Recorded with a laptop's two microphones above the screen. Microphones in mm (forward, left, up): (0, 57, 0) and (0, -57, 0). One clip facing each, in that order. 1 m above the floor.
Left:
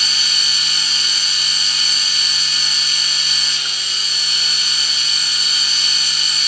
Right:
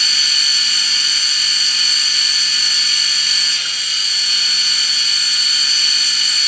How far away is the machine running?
About 1.2 m.